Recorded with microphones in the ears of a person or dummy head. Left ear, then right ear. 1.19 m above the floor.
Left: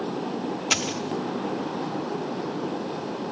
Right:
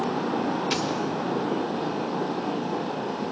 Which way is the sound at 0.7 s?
30° left (ahead or behind).